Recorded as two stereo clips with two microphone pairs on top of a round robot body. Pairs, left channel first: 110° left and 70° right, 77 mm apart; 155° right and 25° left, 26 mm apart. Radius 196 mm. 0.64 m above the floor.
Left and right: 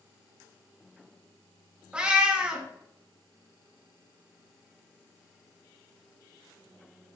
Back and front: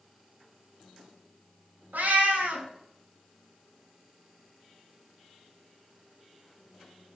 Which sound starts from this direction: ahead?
A cat meowing, at 1.9 s.